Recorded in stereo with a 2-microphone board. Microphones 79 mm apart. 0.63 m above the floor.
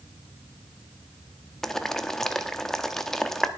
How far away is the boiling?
About 0.9 m.